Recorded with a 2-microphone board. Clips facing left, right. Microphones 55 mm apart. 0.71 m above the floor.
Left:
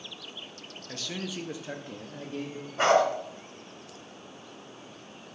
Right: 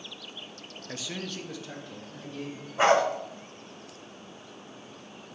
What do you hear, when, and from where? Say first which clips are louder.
0.9 s a man speaking: left 1 dB; 20° right (ahead or behind), 0.5 m; by 2.7 s 55° left (ahead or behind), 1.1 m
2.8 s a dog barking: even; 5° right (ahead or behind), 1.6 m